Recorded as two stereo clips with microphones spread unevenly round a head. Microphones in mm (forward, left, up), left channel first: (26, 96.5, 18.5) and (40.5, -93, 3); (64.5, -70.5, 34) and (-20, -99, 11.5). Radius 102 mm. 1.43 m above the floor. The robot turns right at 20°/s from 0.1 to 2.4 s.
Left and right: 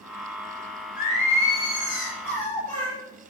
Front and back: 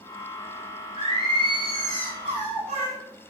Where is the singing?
145° left, 5 m; by 3.0 s 175° left, 5 m.